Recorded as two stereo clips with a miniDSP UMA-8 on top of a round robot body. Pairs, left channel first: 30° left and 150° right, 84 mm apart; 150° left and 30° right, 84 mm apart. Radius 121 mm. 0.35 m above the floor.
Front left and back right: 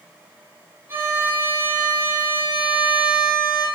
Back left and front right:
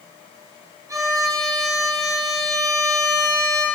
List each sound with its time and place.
0.9 s a violin: 85° right, 3 m